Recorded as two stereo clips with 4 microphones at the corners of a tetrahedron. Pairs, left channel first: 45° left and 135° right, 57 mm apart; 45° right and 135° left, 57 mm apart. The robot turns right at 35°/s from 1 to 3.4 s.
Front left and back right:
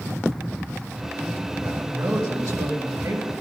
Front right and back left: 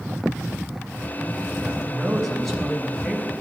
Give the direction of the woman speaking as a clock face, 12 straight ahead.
5 o'clock.